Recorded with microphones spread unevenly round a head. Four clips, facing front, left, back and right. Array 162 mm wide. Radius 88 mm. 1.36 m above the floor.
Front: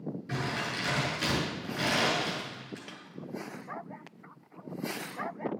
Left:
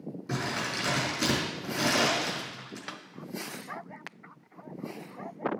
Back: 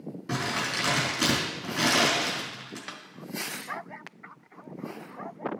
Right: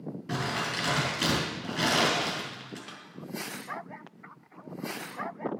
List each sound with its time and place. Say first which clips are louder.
0.3 s crumpling: right 1 dB, back 5 dB; 160° right, 4 m
2.9 s a snare drum: left 4 dB, back 5 dB; 85° left, 0.5 m